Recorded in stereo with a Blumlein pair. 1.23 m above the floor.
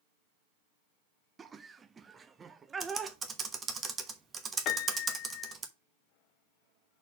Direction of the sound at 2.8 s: 20° right.